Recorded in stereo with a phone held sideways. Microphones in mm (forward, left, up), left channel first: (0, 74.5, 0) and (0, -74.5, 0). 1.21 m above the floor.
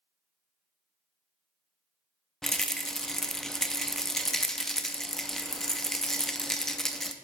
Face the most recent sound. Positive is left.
turn(degrees=0)  # may be behind; listen again after turning